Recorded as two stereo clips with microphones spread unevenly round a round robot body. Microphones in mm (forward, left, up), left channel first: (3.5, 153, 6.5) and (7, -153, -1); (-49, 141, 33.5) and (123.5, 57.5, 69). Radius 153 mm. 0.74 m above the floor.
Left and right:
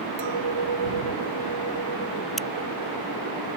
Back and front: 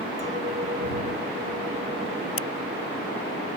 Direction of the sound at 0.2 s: 95° right.